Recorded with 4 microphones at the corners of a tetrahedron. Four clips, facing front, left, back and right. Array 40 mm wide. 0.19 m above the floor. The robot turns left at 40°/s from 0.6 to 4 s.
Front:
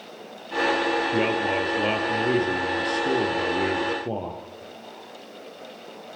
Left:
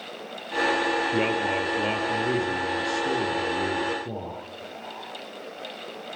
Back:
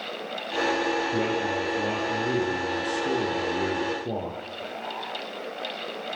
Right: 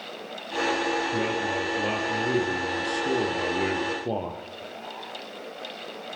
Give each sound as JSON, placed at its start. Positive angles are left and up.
{"t": 1.1, "sound": "a man speaking", "azimuth_deg": 50, "distance_m": 4.5}